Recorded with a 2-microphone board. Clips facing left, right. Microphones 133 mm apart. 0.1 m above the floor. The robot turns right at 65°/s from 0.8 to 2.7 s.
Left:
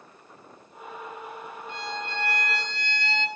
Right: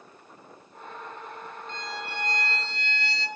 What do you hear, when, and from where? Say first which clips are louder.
1.7 s a violin: left 3 dB; 165° left, 0.5 m; by 3.3 s 125° right, 0.5 m